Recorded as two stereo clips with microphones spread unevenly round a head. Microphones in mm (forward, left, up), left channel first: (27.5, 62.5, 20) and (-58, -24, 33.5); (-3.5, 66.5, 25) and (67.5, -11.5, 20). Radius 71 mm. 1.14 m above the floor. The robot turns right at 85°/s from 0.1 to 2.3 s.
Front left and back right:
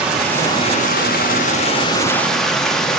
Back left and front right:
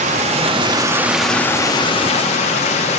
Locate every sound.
0.0 s running water: 55° right, 1.0 m; by 3.0 s 135° left, 1.0 m